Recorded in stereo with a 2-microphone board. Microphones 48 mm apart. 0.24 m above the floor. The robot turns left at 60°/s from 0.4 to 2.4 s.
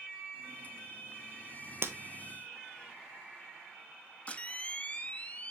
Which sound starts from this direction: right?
Breaking glass, at 1.8 s.